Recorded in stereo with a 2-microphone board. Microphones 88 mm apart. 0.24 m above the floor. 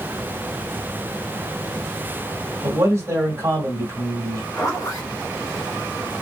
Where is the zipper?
40° left (ahead or behind), 1.7 m.